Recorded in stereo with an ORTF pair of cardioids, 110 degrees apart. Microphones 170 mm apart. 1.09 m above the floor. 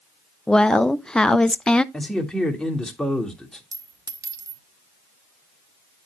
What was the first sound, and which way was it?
A woman speaking, 5° left.